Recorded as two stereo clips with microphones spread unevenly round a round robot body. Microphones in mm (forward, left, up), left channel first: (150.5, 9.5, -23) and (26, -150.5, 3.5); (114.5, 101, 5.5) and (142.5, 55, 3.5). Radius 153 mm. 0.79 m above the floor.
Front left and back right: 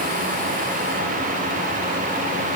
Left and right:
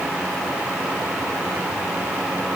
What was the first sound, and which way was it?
Only background noise.